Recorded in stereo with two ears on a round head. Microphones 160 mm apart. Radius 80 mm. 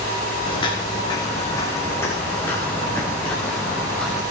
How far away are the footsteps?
About 2 m.